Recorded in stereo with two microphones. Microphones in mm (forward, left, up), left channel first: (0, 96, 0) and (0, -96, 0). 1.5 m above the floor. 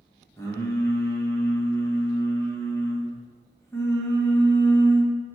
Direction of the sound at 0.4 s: 15° left (ahead or behind).